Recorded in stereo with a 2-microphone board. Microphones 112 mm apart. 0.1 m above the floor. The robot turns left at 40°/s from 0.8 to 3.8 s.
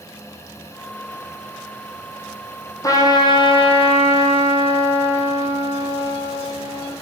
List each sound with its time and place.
2.8 s a trumpet: 150° left, 1.3 m; by 6.9 s 110° left, 1.3 m